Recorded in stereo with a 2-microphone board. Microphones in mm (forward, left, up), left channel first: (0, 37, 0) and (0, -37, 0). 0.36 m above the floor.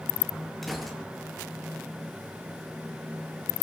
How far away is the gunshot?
About 6 m.